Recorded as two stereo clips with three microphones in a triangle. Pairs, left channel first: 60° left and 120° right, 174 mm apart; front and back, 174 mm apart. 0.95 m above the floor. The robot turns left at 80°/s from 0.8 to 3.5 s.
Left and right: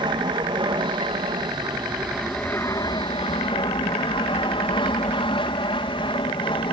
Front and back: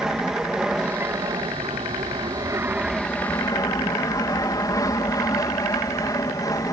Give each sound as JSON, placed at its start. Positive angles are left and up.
{"t": 0.0, "sound": "an aircraft", "azimuth_deg": -95}